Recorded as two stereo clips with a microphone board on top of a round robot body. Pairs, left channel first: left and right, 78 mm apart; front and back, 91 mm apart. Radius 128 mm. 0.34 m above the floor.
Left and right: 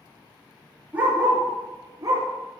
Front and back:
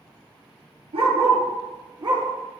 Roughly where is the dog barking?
Behind.